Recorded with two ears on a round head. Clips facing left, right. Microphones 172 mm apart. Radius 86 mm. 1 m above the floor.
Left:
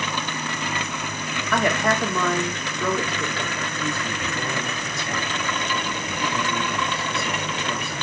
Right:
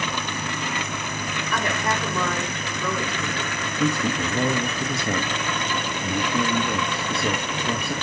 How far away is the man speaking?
About 0.7 m.